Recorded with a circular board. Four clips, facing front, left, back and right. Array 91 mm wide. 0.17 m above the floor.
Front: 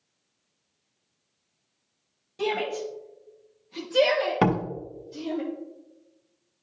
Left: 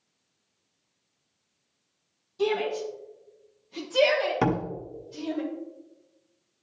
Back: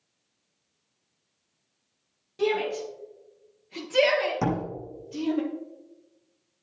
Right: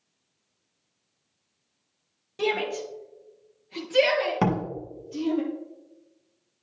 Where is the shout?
95° right, 2.5 m; by 5.4 s 155° right, 4 m.